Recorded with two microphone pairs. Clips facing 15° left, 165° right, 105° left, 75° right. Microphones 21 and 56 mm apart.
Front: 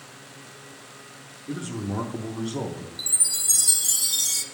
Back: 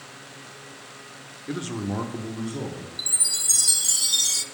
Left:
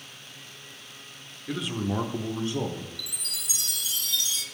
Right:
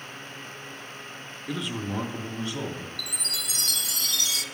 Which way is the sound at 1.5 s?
160° right.